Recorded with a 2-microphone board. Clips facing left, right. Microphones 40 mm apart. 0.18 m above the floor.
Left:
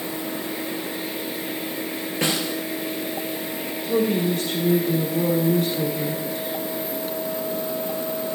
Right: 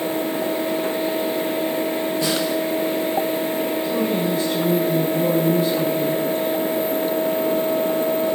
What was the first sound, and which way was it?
A snare drum, 60° left (ahead or behind).